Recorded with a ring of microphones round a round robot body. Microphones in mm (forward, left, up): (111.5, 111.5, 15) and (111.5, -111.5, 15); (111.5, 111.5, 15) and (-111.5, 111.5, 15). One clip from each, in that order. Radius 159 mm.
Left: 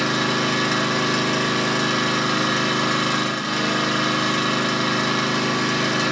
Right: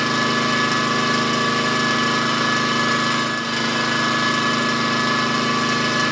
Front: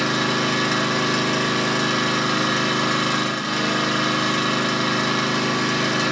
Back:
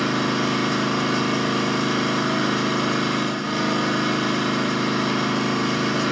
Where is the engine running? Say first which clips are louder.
Right 2 dB, front 2 dB; 15° right, 1.5 m.